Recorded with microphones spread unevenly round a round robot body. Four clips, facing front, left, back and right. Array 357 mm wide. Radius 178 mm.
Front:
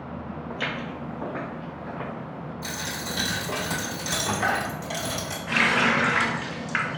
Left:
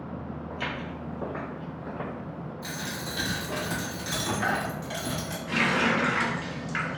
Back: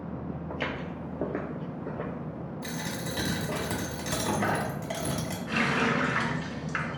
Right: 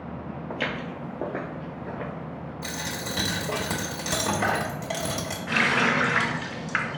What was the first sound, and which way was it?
Footsteps, 85° right.